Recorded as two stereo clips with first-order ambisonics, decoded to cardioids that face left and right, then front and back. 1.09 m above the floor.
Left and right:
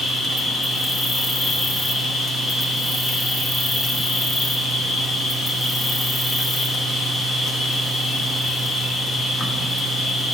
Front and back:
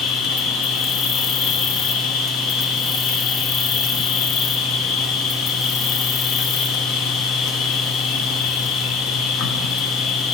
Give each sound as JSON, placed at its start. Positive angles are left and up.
{"t": 0.0, "sound": "an insect", "azimuth_deg": 15, "distance_m": 0.8}